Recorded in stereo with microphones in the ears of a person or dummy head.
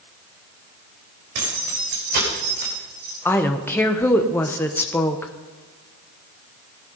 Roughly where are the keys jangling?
Right.